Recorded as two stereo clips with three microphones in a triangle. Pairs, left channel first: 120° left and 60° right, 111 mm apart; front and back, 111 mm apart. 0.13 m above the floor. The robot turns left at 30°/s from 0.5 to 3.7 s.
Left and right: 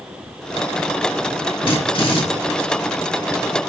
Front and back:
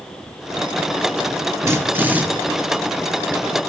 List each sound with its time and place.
1.7 s a drill: 125° left, 2.5 m; by 2.2 s 105° left, 2.5 m